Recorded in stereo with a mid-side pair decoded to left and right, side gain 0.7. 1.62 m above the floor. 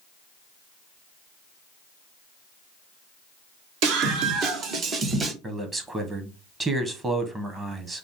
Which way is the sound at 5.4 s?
20° right.